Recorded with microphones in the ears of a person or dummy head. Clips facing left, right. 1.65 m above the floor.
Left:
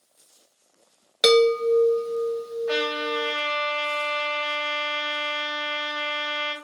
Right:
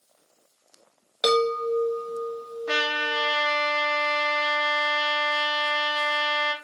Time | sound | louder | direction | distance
1.2 | a chime | left 6 dB | 25° left (ahead or behind) | 0.7 m
2.7 | a trumpet | left 2 dB | 70° right (ahead or behind) | 1.3 m